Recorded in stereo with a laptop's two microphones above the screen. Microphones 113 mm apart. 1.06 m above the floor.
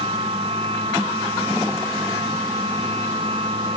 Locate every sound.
0.0 s a machine running: 60° right (ahead or behind)